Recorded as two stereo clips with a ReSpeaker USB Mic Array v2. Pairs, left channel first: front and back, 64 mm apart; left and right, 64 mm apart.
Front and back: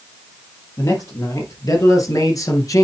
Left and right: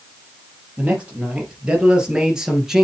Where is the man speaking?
20° right, 3.5 m; by 2.9 s 10° right, 2.5 m.